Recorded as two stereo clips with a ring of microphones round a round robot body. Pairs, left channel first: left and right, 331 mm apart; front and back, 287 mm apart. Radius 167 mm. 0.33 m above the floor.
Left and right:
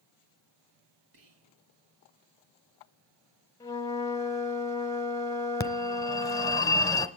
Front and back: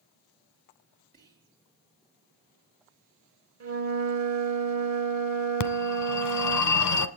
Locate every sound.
1.1 s whispering: 115° right, 3.5 m
3.6 s a flute: 170° left, 1.5 m
5.6 s a phone ringing: 10° left, 1.0 m